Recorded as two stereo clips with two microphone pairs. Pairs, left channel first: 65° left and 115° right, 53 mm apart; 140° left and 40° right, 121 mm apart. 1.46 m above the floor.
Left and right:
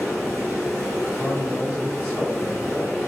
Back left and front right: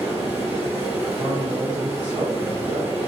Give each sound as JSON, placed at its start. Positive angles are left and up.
{"t": 0.0, "sound": "running water", "azimuth_deg": 20, "distance_m": 1.8}
{"t": 1.1, "sound": "a man speaking", "azimuth_deg": 10, "distance_m": 0.7}